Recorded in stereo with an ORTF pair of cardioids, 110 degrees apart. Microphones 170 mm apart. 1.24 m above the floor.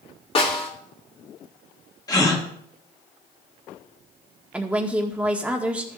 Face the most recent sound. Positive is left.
turn(degrees=-10)